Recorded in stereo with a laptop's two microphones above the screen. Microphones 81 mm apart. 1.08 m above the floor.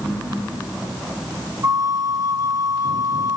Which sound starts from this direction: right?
A flute, at 1.6 s.